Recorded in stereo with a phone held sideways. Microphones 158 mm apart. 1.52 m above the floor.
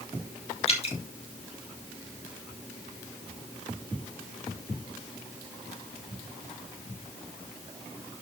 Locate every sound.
0.7 s dripping: 40° left (ahead or behind), 2 m